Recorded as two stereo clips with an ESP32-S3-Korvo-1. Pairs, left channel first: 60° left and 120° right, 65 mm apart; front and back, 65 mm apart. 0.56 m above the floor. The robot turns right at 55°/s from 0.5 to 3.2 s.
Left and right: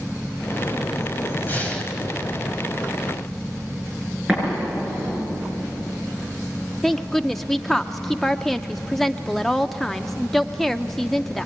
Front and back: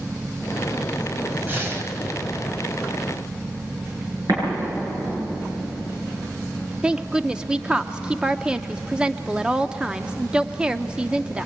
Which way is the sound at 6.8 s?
135° left.